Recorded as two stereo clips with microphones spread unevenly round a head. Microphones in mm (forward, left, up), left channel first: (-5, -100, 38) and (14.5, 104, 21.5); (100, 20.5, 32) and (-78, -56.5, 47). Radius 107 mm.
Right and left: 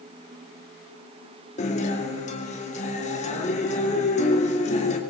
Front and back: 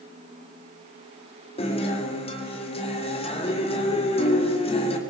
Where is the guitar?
40° right, 3 m.